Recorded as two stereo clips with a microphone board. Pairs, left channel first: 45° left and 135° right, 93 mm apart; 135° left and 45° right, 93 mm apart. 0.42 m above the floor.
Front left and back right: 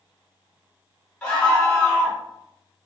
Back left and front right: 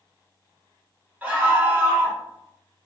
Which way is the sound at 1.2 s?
15° right.